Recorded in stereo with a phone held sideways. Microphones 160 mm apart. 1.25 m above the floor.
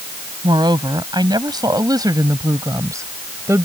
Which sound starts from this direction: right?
A woman speaking, at 0.4 s.